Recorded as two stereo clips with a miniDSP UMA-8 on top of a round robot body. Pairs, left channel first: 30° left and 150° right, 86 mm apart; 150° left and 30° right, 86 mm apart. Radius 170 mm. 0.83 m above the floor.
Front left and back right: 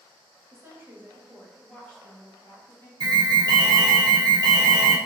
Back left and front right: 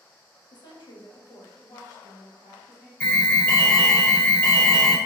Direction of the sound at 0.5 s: 160° left.